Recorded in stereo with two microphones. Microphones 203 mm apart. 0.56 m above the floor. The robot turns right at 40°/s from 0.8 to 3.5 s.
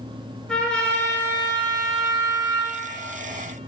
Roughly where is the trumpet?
Ahead.